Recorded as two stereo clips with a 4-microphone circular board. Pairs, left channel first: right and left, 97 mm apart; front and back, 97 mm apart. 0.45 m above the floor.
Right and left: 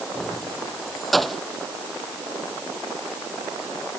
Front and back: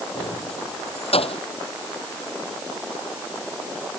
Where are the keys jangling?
Straight ahead.